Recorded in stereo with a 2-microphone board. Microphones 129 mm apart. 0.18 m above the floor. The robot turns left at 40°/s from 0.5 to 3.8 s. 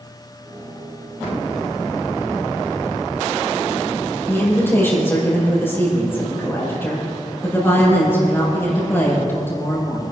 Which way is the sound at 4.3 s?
20° left (ahead or behind).